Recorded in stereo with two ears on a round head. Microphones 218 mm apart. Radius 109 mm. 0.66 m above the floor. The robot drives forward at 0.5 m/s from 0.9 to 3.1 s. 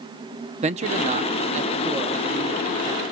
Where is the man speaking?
30° right (ahead or behind), 0.7 m; by 3.0 s 20° right (ahead or behind), 1.1 m.